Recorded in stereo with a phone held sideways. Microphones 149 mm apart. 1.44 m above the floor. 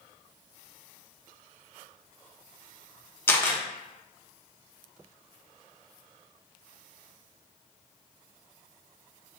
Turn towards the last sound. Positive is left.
turn(degrees=15)  # may be behind; listen again after turning